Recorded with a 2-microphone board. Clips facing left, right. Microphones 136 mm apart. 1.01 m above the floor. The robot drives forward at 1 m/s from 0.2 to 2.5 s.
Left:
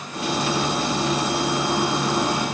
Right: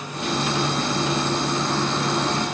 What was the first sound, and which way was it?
Only background noise.